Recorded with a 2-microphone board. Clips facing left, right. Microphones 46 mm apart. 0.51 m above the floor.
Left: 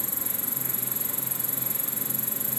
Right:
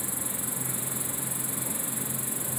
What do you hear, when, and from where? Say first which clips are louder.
0.0 s an insect: right 1 dB; 15° right (ahead or behind)